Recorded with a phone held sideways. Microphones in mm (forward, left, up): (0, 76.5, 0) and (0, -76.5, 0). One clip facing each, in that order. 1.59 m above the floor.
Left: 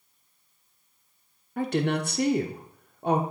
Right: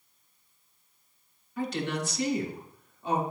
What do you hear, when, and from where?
1.6 s a woman speaking: 60° left (ahead or behind), 0.8 m